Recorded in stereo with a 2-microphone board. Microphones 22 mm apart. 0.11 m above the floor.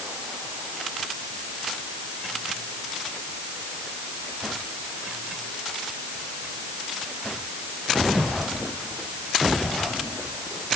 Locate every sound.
Only background noise.